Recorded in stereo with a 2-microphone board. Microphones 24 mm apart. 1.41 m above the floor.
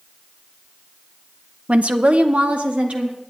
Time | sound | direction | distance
1.7 | a woman speaking | 60° right (ahead or behind) | 0.6 m